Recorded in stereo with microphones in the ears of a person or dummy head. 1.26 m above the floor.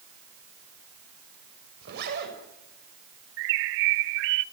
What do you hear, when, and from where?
1.8 s a zipper: 55° right (ahead or behind), 7 m
3.4 s a bird: 65° right (ahead or behind), 0.5 m